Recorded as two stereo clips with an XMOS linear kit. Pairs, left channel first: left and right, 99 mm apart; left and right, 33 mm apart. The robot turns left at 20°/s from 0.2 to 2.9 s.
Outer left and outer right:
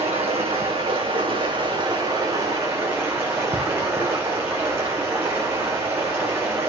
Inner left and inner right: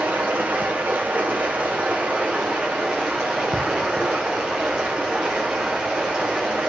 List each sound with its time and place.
0.0 s running water: 105° right, 2 m; by 6.7 s 155° right, 2 m